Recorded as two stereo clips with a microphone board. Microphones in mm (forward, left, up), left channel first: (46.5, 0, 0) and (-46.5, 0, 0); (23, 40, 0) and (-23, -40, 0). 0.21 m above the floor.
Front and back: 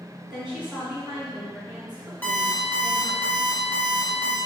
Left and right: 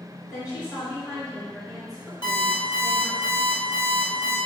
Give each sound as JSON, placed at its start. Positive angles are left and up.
{"t": 0.3, "sound": "a woman speaking", "azimuth_deg": 95, "distance_m": 2.0}
{"t": 2.2, "sound": "an alarm clock", "azimuth_deg": 65, "distance_m": 1.6}